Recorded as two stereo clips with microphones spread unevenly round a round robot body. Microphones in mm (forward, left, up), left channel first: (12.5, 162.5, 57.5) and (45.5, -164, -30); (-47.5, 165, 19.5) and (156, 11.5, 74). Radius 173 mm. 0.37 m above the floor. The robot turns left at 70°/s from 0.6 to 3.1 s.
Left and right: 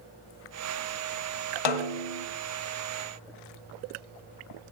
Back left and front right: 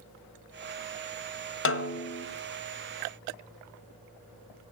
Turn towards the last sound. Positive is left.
turn(degrees=20)